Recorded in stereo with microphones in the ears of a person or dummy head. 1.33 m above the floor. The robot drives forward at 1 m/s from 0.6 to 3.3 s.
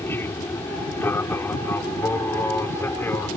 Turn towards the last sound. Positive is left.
turn(degrees=10)  # may be behind; listen again after turning